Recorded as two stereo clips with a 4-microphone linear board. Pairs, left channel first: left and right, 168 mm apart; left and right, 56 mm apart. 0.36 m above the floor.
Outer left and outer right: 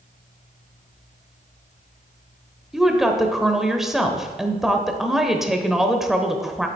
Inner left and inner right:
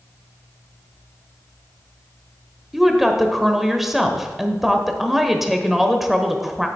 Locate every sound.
2.7 s a woman speaking: centre (ahead or behind), 1.0 m